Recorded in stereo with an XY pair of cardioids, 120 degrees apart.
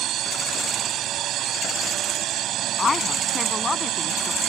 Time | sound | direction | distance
0.0 | a drone | 65° right | ?
2.8 | a woman speaking | 25° left | ?